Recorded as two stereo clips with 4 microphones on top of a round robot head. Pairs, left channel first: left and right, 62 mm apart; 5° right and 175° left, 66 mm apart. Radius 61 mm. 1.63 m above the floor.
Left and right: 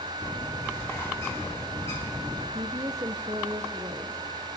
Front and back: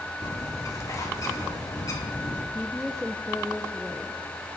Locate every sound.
0.2 s a bird: 30° left, 2.5 m
2.5 s a woman speaking: 90° right, 0.7 m